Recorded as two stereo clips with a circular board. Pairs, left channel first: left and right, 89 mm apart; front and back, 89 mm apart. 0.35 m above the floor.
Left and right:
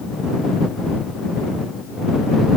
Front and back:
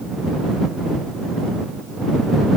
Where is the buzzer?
I don't hear a buzzer.